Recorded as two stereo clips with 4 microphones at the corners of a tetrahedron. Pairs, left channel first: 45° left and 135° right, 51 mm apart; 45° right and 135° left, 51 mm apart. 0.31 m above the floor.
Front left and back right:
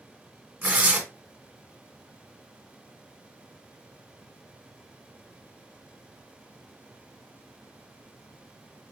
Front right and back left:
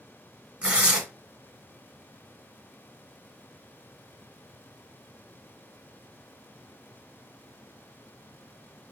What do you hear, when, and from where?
0.6 s tearing paper: 165° right, 1.1 m